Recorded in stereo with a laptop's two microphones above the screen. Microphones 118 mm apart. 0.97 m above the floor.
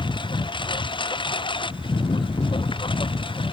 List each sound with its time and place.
0.0 s a lawn mower: 45° left (ahead or behind)